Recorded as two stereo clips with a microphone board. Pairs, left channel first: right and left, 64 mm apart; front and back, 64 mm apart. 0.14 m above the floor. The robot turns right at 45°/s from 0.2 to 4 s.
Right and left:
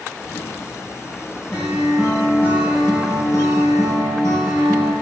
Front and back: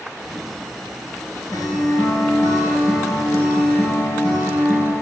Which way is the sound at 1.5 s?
15° right.